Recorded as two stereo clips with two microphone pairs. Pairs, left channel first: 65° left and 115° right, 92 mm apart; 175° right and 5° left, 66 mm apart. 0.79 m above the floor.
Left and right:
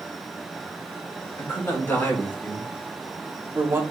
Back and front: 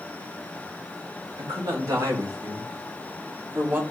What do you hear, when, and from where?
1.4 s a man speaking: 5° left, 3 m; by 3.8 s 55° right, 1.7 m